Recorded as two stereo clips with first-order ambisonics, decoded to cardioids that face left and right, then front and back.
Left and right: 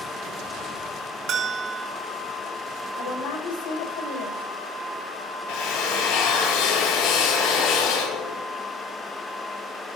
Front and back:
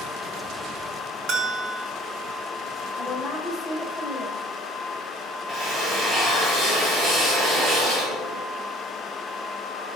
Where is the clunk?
No clunk in this recording.